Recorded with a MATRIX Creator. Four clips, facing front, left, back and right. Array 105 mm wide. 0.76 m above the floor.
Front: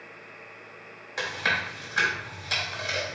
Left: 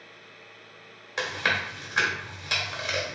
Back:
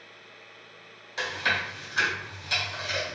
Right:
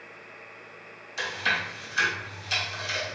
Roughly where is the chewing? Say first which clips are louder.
Left 1 dB, even; left.